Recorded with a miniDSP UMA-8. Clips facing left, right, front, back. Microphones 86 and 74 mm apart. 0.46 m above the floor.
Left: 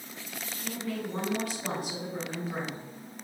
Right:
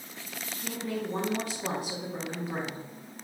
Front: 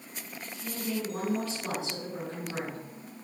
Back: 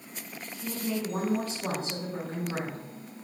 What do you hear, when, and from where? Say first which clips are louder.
0.6 s a woman speaking: right 1 dB, back 2 dB; 140° right, 1.5 m